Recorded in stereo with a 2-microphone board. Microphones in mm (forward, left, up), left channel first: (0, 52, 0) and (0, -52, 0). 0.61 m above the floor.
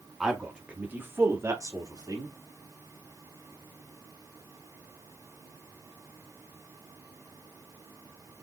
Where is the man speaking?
5° right (ahead or behind), 1.1 m; by 2.4 s 40° right (ahead or behind), 1.1 m.